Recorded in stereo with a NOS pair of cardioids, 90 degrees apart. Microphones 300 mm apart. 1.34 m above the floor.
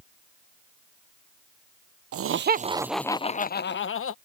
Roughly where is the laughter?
Ahead right.